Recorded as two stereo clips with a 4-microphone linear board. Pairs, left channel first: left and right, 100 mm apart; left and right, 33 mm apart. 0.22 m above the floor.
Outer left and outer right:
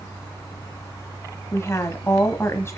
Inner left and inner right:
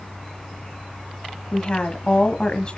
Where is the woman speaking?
25° left (ahead or behind), 1.4 m.